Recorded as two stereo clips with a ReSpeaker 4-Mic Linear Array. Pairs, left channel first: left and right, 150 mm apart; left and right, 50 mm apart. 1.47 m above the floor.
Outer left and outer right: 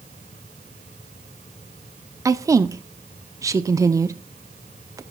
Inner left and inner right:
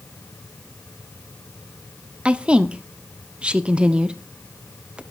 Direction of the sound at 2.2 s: 20° right (ahead or behind).